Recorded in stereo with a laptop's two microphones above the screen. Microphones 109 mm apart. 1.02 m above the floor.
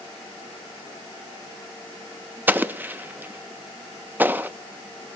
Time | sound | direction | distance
2.5 | an explosion | 15° right (ahead or behind) | 1.1 m